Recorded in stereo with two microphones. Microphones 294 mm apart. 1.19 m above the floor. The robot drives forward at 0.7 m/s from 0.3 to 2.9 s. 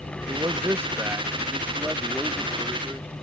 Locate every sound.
0.3 s a man speaking: 10° right (ahead or behind); by 3.1 s 5° right (ahead or behind)